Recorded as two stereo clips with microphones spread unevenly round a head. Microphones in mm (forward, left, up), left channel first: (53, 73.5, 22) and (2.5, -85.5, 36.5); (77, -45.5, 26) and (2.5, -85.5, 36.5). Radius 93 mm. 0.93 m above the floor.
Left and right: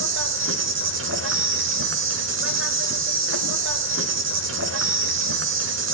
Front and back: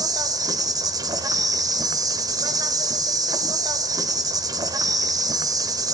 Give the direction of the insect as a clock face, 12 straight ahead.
4 o'clock.